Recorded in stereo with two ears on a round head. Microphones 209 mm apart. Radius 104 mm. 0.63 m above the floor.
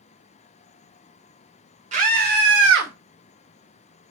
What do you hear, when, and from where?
1.9 s a scream: 30° right (ahead or behind), 2.5 m; by 2.9 s 65° right (ahead or behind), 2.5 m